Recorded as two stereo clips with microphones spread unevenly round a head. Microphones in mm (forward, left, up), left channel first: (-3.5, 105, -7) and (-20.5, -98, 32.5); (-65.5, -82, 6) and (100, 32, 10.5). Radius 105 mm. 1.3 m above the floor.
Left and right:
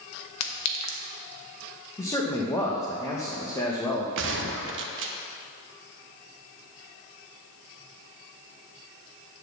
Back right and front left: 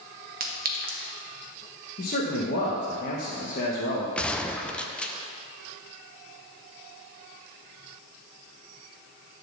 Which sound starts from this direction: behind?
A man speaking, at 2.0 s.